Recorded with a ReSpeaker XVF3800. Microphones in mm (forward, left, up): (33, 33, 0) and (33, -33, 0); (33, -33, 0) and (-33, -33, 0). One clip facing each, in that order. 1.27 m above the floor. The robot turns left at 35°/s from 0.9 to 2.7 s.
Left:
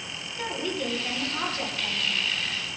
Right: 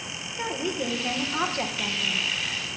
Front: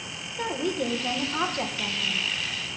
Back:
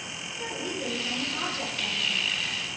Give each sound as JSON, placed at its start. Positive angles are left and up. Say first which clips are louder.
{"t": 0.4, "sound": "a woman speaking", "louder": "right 1 dB, front 6 dB", "azimuth_deg": -15, "distance_m": 1.4}